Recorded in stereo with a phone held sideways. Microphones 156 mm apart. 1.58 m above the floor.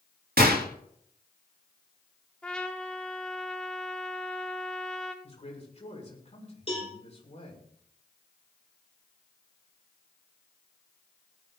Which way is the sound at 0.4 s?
80° right.